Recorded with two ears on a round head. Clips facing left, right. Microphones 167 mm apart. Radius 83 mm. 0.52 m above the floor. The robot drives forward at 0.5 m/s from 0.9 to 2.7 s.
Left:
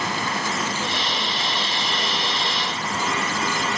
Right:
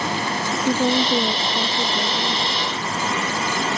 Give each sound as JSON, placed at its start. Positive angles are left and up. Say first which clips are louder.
{"t": 0.6, "sound": "a woman speaking", "louder": "right 8 dB", "side_deg": -45}